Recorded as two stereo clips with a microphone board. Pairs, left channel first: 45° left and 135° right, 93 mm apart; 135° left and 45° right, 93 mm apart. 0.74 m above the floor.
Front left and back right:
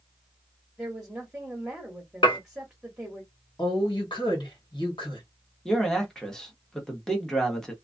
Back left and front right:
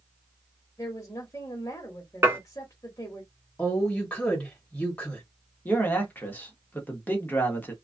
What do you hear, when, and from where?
0.8 s a woman speaking: 145° left, 1.2 m
2.2 s dishes clattering: 20° left, 1.2 m
3.6 s a woman speaking: 65° left, 1.9 m
5.7 s a man speaking: 120° left, 1.1 m